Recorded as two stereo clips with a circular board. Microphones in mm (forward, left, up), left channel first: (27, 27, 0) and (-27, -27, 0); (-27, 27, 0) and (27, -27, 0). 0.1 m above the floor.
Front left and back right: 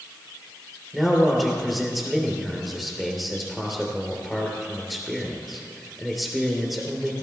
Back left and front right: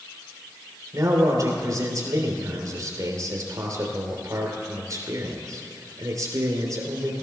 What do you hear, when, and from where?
0.9 s a man speaking: 45° right, 2.5 m